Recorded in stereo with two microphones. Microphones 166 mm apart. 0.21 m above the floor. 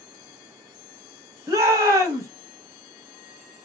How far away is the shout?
About 1.1 m.